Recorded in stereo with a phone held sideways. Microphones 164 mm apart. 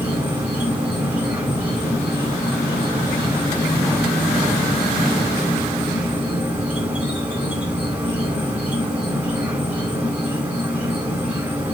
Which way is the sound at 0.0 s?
10° right (ahead or behind).